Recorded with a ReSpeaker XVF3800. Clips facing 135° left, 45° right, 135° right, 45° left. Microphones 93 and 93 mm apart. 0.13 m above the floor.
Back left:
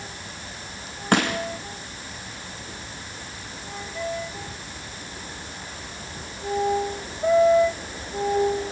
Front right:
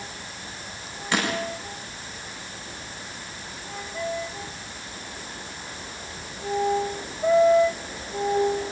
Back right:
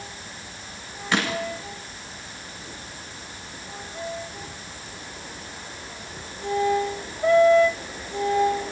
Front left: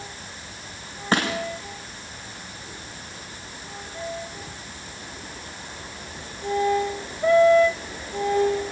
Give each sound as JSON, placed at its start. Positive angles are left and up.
{"t": 1.1, "sound": "crushing", "azimuth_deg": 95, "distance_m": 5.5}